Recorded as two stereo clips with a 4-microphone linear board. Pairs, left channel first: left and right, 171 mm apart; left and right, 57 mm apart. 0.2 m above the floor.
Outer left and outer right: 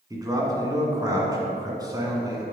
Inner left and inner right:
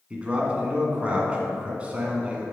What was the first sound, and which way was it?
A man speaking, 20° right (ahead or behind).